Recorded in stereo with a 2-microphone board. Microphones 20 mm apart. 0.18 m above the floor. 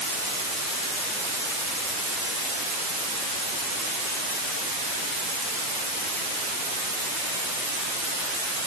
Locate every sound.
Only background noise.